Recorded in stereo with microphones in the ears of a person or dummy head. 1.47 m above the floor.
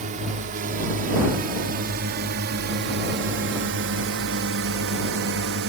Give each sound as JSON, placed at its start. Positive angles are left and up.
{"t": 0.0, "sound": "a drone", "side_deg": -40}